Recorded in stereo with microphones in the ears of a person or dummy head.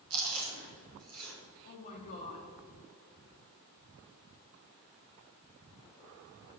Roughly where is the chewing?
Right.